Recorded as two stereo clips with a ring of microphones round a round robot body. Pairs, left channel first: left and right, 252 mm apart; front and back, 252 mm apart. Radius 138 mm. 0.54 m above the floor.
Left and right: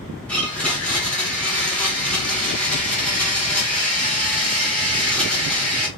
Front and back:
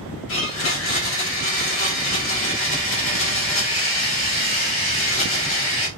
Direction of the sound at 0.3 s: 5° left.